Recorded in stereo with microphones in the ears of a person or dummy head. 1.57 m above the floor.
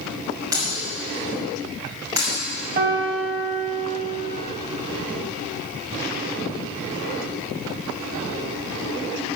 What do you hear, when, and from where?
0.5 s breaking glass: 20° right (ahead or behind), 5.5 m
2.8 s a piano: 45° right (ahead or behind), 2.5 m